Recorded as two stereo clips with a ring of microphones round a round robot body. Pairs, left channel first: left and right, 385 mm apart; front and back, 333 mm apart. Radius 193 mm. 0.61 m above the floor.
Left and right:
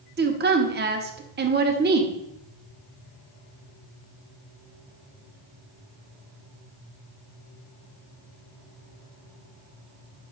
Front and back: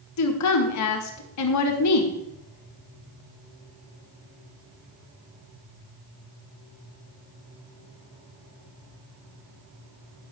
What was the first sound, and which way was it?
A woman speaking, 30° right.